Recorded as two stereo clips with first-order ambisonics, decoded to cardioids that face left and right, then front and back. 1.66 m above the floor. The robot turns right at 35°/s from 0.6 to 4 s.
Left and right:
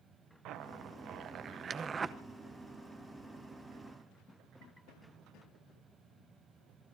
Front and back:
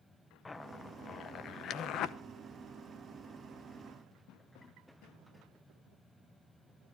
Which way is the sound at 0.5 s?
75° right.